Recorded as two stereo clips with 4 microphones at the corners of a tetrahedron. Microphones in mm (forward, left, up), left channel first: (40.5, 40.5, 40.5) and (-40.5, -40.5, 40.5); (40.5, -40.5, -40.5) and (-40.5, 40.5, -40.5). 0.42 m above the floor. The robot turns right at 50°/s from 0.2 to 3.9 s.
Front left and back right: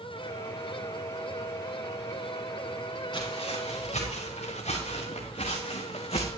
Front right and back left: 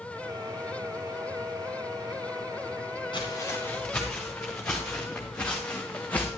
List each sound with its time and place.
3.1 s footsteps: straight ahead, 4.5 m; by 6.3 s 30° left, 1.6 m